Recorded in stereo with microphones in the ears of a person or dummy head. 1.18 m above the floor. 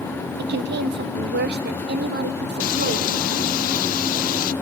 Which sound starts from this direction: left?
Frying, at 2.6 s.